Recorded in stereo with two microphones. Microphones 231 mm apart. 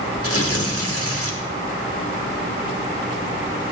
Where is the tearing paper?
85° left, 1.6 m.